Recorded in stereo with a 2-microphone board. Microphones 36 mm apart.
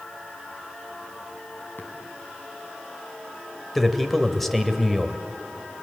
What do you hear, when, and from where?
1.8 s tapping: 70° left (ahead or behind), 4 m
3.8 s a man speaking: 5° left (ahead or behind), 1.9 m